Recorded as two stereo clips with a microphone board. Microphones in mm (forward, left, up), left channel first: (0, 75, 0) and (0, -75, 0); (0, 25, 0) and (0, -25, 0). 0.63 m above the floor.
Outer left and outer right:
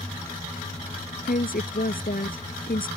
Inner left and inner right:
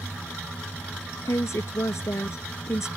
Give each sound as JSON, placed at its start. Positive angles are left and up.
{"t": 1.2, "sound": "a woman speaking", "side_deg": 75}